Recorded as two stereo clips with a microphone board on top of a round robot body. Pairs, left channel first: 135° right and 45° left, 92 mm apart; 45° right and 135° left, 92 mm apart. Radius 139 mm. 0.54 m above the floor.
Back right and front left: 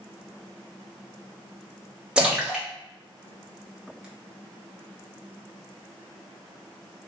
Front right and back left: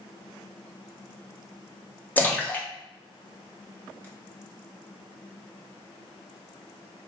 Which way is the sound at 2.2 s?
15° right.